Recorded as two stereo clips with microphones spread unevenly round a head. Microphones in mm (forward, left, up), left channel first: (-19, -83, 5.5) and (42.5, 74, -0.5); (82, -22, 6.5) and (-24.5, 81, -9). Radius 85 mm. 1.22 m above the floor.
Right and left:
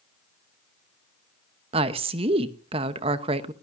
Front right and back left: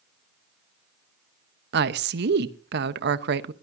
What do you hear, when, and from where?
1.7 s a woman speaking: 130° left, 1.0 m